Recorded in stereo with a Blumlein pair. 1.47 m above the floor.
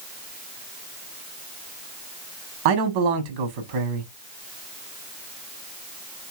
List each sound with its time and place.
2.6 s a man speaking: 50° right, 1.0 m